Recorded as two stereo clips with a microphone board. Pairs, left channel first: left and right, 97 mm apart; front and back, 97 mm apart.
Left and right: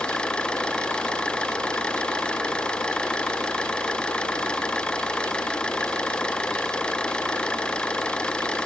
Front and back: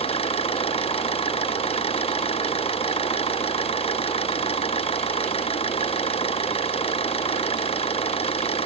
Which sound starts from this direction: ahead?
An engine running, at 0.0 s.